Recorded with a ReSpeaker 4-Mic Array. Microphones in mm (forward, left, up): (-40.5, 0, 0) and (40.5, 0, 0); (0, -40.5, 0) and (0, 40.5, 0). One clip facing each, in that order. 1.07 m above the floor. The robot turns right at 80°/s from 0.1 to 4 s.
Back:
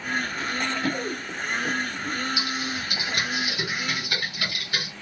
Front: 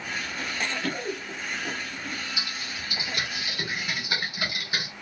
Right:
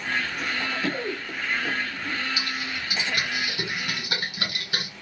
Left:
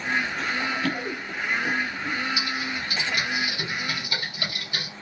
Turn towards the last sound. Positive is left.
turn(degrees=-75)